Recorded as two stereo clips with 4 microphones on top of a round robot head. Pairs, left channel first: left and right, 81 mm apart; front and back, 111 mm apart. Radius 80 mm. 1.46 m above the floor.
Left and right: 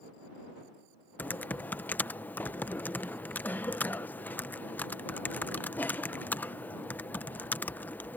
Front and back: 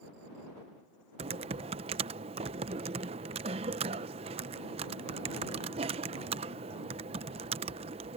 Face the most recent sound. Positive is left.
turn(degrees=155)